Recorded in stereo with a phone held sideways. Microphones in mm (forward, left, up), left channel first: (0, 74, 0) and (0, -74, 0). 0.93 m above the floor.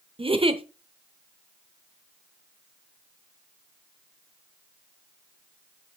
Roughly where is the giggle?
Right.